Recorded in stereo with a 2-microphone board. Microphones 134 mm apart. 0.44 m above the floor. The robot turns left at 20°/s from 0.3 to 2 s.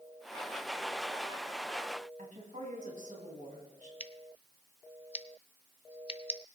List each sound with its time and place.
2.2 s a woman speaking: 75° right (ahead or behind), 2.5 m
4.0 s scissors: 45° left (ahead or behind), 0.6 m